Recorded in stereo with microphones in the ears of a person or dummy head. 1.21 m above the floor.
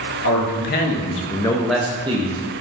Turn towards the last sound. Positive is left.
turn(degrees=-35)  # may be behind; listen again after turning